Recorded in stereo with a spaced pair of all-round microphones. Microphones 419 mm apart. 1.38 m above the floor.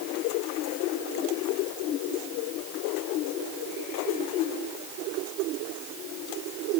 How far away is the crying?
No crying in this recording.